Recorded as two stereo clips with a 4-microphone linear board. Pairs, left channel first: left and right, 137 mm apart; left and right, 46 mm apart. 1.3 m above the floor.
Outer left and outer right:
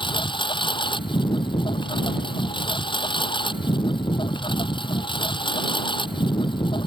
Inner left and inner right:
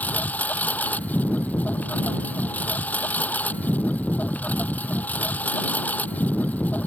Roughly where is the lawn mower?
Left.